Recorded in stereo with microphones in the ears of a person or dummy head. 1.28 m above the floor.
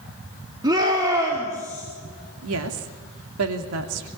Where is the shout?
20° right (ahead or behind), 3.5 m; by 1.8 s 15° right (ahead or behind), 5 m.